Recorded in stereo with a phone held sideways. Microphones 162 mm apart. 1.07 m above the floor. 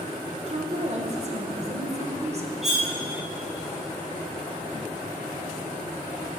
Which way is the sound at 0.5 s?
45° right (ahead or behind).